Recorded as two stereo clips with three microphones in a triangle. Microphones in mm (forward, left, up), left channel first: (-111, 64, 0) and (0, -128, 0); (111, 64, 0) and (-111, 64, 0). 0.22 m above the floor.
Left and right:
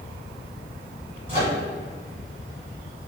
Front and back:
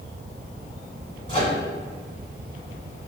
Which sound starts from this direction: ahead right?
A microwave, at 1.3 s.